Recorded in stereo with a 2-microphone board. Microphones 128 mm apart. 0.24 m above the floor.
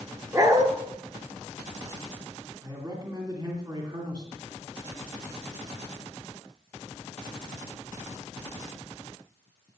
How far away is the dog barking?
About 1.6 m.